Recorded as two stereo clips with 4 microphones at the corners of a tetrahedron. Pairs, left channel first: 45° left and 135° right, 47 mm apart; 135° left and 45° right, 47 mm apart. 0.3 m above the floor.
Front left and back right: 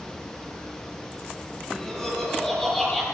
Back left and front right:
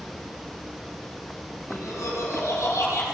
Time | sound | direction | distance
1.7 | laughter | 130° left | 9.5 m